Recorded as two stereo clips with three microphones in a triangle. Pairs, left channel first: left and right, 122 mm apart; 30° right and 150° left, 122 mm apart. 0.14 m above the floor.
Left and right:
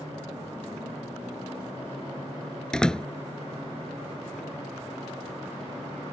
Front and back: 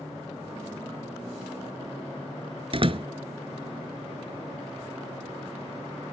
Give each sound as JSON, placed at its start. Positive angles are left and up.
{"t": 2.7, "sound": "a door slam", "azimuth_deg": 170}